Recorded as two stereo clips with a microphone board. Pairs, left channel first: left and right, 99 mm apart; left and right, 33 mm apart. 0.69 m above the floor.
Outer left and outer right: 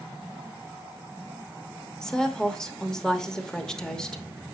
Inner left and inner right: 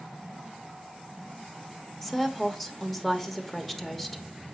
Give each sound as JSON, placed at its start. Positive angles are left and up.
{"t": 2.0, "sound": "a woman speaking", "side_deg": 10, "distance_m": 0.9}